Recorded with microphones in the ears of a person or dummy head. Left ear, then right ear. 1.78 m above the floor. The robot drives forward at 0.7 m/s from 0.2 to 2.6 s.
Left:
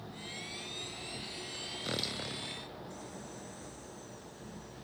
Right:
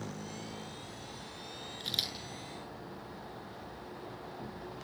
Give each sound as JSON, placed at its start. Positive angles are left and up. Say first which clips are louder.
{"t": 1.8, "sound": "a camera shutter", "louder": "right 3 dB", "side_deg": -25, "distance_m": 8.5}